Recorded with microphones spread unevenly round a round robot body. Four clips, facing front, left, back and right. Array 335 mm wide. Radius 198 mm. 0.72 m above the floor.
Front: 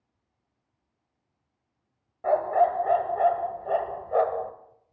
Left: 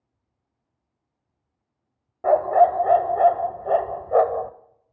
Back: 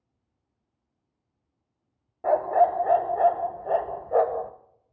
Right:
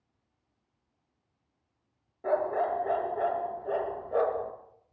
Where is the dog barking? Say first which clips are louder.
Left 11 dB, back 1 dB; 110° left, 0.8 m.